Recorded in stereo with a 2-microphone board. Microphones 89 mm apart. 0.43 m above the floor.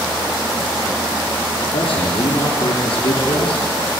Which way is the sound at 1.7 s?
85° left.